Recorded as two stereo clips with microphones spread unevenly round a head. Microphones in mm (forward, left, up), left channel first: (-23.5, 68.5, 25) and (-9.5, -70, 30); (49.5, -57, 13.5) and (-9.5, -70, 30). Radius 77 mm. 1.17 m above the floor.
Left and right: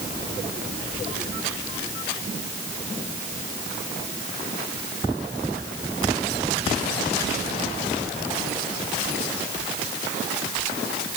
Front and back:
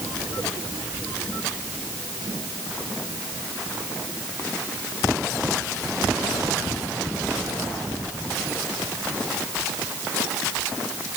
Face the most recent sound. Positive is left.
No sound to turn to.